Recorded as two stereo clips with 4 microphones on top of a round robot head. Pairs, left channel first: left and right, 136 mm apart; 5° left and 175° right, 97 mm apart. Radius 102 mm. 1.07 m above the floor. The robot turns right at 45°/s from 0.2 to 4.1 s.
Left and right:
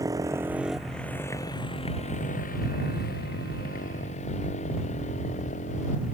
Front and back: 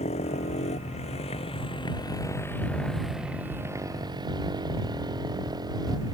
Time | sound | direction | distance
0.0 | a motorcycle | 25° right | ?